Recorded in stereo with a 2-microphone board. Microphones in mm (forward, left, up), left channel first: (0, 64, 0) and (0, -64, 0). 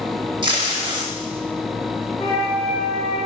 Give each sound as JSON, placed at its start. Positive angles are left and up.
{"t": 0.4, "sound": "tape being pulled", "side_deg": -40, "distance_m": 0.6}
{"t": 2.2, "sound": "a flute", "side_deg": 50, "distance_m": 1.6}